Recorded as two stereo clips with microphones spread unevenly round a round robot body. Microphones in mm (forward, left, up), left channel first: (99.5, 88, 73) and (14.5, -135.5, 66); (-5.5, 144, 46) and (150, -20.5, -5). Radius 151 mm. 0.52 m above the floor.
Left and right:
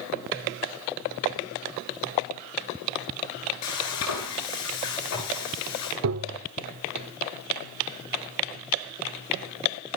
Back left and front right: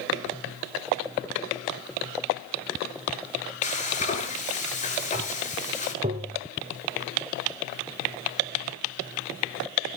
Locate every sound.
3.6 s frying: 75° left, 9 m
6.0 s tapping: 105° right, 1.0 m